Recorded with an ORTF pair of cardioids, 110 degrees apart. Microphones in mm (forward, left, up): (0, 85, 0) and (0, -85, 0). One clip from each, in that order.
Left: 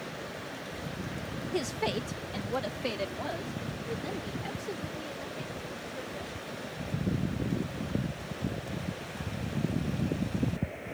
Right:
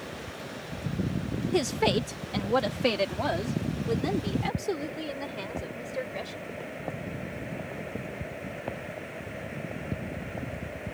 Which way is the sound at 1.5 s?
30° right.